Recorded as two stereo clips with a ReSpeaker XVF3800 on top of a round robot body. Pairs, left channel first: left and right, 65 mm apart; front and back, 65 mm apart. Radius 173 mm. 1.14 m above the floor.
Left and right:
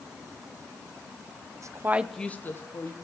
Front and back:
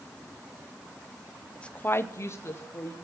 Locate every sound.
1.6 s a woman speaking: 75° right, 1.0 m; by 3.0 s 55° left, 1.5 m